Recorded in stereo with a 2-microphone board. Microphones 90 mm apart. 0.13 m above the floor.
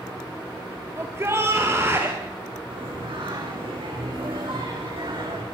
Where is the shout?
30° right (ahead or behind), 2.5 m.